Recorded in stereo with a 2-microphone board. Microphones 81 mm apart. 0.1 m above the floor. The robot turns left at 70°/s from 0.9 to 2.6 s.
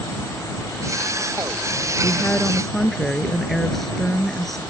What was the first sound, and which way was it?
A woman speaking, 45° left.